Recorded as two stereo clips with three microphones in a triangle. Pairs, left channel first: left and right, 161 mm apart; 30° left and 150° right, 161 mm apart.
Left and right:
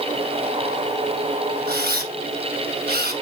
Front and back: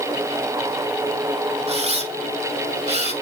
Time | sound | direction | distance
1.7 | a camera shutter | 100° right | 2.5 m